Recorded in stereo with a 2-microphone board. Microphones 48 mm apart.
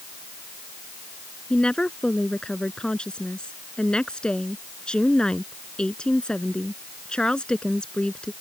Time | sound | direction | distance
1.5 | a woman speaking | 20° left (ahead or behind) | ?